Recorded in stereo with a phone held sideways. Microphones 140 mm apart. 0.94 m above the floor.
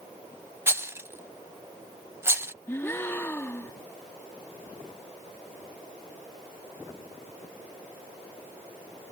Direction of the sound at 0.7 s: 20° right (ahead or behind).